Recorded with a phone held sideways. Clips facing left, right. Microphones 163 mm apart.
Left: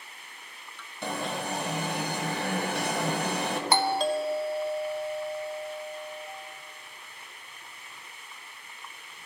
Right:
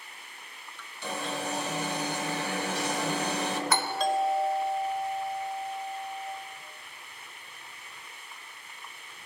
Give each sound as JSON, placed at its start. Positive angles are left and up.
{"t": 1.0, "sound": "an alarm", "side_deg": 60, "distance_m": 1.3}
{"t": 3.7, "sound": "a doorbell", "side_deg": 30, "distance_m": 0.8}